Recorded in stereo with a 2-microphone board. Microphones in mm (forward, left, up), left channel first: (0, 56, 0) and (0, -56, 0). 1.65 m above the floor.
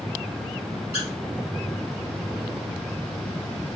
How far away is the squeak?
About 2.5 m.